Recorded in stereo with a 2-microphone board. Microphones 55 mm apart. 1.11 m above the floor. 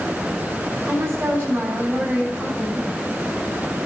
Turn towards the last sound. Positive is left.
turn(degrees=-45)  # may be behind; listen again after turning